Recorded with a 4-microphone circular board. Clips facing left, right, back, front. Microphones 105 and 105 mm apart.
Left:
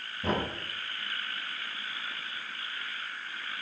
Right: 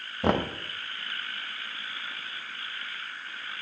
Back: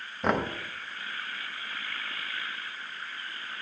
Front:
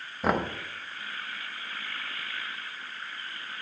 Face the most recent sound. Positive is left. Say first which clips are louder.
# right 5 dB, even
turn(degrees=-85)